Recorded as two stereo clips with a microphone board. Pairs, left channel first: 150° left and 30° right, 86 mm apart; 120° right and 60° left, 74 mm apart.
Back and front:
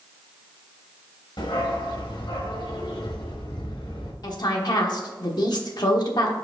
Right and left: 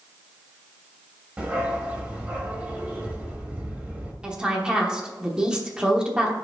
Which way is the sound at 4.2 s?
140° left.